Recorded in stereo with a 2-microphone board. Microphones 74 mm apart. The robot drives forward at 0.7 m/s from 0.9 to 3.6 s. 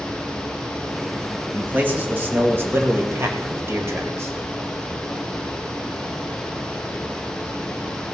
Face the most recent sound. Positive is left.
turn(degrees=-40)  # may be behind; listen again after turning